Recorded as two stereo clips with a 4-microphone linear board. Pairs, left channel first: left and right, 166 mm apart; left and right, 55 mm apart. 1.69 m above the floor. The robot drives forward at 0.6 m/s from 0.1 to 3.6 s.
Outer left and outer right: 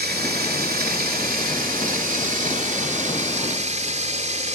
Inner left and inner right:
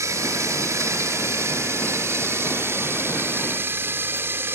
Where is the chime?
I don't hear a chime.